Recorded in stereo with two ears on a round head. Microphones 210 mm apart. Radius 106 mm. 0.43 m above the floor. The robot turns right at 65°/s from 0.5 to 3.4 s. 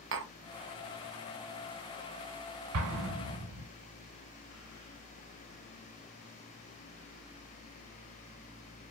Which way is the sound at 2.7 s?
70° right (ahead or behind).